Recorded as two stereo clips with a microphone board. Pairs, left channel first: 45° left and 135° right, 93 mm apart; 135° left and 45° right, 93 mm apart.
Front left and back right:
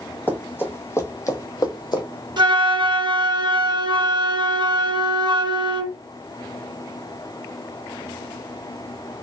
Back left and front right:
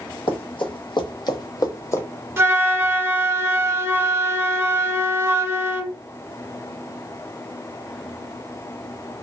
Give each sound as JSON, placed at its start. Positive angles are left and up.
{"t": 0.3, "sound": "running footsteps", "azimuth_deg": 115, "distance_m": 1.5}
{"t": 2.4, "sound": "a flute", "azimuth_deg": -105, "distance_m": 0.6}